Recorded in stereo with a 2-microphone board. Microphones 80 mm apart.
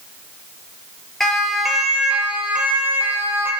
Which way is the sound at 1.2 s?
5° left (ahead or behind).